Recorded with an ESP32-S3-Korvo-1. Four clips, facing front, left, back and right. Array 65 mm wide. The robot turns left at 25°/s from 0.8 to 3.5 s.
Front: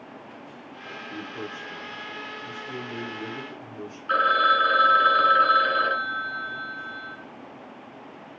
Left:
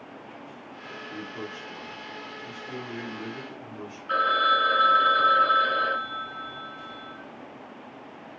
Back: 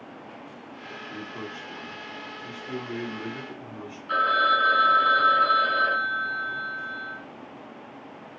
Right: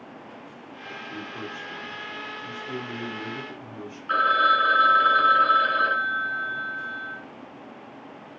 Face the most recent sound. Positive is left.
turn(degrees=-25)